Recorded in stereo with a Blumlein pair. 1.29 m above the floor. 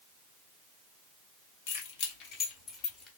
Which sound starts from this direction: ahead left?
Keys jangling, at 1.7 s.